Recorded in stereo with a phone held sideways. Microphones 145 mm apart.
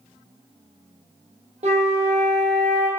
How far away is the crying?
No crying in this recording.